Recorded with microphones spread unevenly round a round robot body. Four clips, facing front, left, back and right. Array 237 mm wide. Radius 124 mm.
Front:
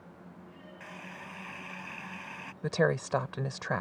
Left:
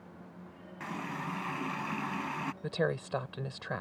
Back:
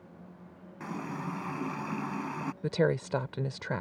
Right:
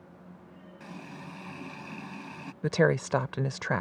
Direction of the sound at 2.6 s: 90° right.